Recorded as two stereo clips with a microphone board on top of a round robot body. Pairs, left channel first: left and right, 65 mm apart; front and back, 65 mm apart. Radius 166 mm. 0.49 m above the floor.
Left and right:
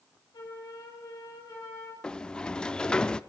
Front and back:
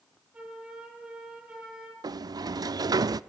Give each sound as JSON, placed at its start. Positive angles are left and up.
{"t": 0.3, "sound": "a flute", "azimuth_deg": 110, "distance_m": 6.0}
{"t": 2.0, "sound": "a sliding door", "azimuth_deg": 165, "distance_m": 0.5}